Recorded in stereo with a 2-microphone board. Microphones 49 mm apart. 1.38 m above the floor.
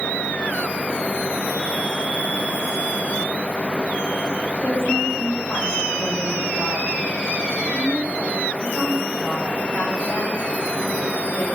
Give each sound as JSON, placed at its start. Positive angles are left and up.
{"t": 4.6, "sound": "a woman speaking", "side_deg": 80, "distance_m": 7.5}